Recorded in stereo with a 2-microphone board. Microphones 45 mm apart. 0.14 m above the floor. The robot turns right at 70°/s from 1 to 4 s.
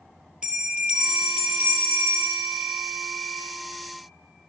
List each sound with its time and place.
0.4 s a bell: 160° right, 1.9 m; by 3.4 s 10° left, 1.9 m